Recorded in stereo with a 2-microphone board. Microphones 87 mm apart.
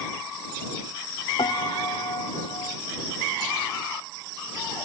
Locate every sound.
1.4 s a piano: 70° left (ahead or behind)